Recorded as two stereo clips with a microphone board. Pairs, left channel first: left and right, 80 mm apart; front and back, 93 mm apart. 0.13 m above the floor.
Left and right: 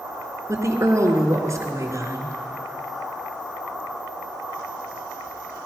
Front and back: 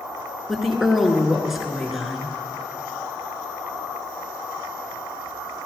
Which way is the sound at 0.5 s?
90° right.